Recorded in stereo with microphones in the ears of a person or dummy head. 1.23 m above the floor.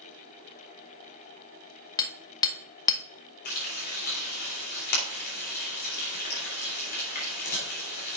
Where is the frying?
55° left (ahead or behind), 3 m.